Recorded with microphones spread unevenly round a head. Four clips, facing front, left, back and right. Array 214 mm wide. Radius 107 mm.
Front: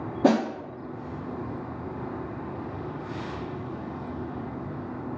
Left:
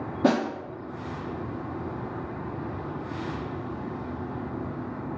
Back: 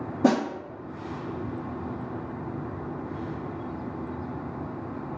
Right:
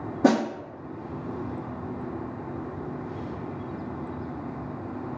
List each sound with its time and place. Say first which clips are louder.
0.2 s a snare drum: right 2 dB, front 1 dB; 130° right, 0.9 m